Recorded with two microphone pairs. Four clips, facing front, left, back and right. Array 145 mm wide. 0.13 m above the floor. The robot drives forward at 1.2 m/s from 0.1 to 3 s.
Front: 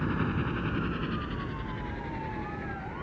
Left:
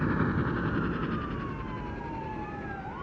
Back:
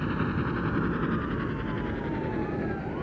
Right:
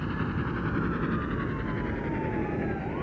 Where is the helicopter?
100° left; by 3.0 s 135° right.